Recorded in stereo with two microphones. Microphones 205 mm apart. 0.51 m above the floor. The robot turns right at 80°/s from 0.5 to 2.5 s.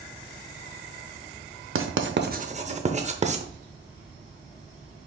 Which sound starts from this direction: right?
Writing, at 1.8 s.